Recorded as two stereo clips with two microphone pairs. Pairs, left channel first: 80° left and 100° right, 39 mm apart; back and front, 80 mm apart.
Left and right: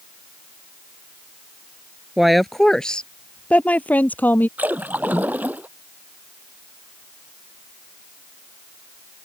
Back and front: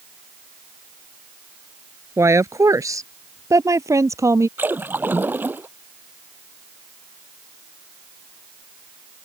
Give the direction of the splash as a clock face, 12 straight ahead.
2 o'clock.